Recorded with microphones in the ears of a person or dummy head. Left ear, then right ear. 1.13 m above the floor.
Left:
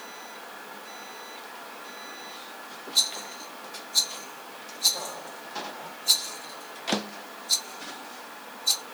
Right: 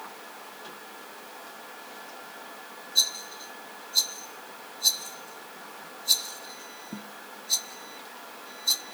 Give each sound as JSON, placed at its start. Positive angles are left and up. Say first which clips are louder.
{"t": 3.0, "sound": "a rattle", "louder": "even", "side_deg": 30, "distance_m": 1.1}